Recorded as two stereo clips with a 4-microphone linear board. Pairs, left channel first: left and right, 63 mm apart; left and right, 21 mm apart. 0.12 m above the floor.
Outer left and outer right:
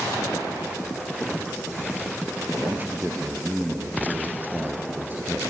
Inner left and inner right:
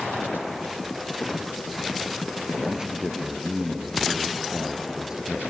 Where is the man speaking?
30° right (ahead or behind), 1.9 m.